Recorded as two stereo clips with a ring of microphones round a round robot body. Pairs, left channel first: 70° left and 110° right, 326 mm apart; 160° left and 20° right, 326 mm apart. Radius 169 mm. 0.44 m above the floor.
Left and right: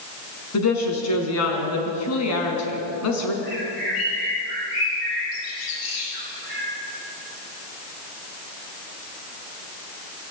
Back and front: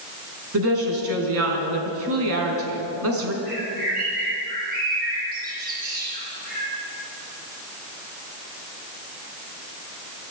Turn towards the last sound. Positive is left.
turn(degrees=40)